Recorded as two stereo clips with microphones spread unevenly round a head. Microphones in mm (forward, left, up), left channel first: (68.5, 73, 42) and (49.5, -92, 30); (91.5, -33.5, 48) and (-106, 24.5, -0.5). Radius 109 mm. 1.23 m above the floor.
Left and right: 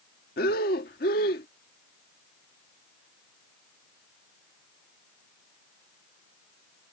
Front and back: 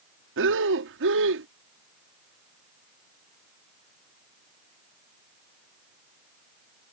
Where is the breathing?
130° left.